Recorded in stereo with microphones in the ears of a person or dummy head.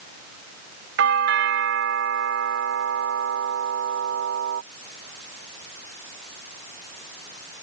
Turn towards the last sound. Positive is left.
turn(degrees=-70)  # may be behind; listen again after turning